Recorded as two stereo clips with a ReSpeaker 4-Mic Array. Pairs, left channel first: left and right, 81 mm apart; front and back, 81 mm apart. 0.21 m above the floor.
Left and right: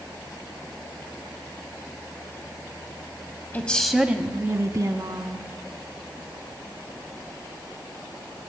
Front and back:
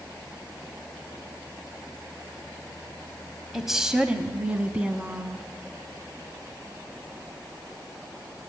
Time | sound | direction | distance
3.5 | a woman speaking | 95° left | 1.0 m